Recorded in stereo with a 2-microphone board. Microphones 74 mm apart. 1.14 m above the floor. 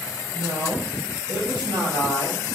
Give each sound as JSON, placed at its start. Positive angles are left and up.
{"t": 0.3, "sound": "a woman speaking", "side_deg": -50, "distance_m": 1.0}